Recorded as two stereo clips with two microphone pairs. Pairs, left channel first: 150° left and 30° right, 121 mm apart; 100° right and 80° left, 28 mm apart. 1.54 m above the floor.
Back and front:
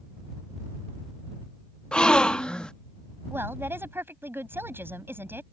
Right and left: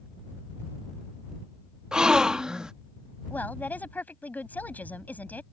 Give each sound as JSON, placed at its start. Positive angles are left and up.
{"t": 1.9, "sound": "a gasp", "azimuth_deg": 80}
{"t": 3.3, "sound": "a woman speaking", "azimuth_deg": -100}